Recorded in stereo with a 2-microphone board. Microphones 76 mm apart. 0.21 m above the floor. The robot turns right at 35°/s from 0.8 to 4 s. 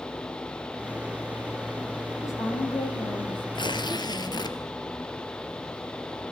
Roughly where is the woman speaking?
Ahead left.